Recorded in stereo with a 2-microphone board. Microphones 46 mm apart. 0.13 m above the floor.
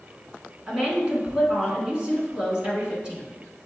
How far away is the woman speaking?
About 1.4 m.